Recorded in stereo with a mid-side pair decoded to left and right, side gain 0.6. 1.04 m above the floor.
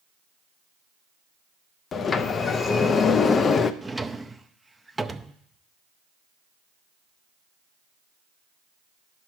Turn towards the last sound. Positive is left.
turn(degrees=-10)